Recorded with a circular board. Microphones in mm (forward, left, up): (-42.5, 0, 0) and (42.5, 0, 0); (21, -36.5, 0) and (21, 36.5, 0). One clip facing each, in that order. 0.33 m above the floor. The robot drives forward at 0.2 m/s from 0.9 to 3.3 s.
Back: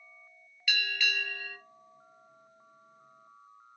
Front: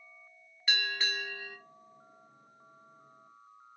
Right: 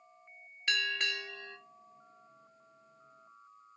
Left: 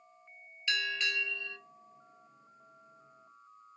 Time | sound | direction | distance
0.7 | a bell | 55° right | 1.1 m